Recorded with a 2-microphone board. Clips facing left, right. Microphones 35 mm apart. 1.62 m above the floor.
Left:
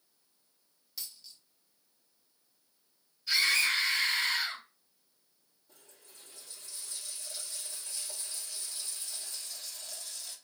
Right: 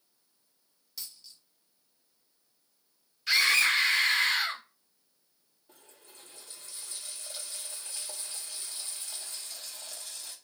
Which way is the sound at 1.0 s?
Centre (ahead or behind).